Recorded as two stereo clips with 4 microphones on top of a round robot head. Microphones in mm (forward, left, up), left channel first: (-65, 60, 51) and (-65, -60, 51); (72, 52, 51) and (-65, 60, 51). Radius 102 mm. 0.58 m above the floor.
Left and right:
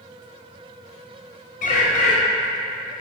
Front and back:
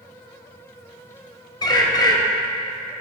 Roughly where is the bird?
Ahead left.